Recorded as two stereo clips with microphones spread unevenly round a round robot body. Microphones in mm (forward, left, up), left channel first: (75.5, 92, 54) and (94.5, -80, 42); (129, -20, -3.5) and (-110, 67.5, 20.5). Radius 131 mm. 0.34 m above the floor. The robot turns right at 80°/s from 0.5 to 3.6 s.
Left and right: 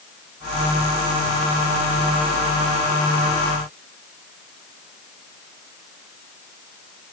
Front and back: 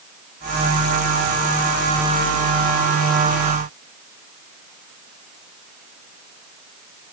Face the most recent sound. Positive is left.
No sound to turn to.